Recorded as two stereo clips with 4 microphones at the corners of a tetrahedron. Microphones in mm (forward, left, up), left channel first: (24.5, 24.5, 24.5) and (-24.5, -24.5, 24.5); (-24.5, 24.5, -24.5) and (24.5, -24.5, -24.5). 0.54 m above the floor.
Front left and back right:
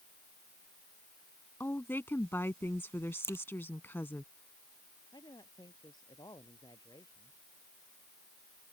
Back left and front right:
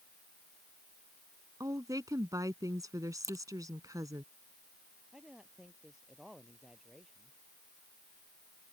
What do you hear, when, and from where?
1.6 s a woman speaking: 15° right
3.2 s a crack: 10° right
5.1 s a man speaking: 35° left